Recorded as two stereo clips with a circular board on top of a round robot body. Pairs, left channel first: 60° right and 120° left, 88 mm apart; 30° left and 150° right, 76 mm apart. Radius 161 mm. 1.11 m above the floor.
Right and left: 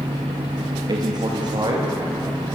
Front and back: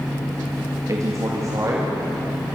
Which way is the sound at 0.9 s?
160° left.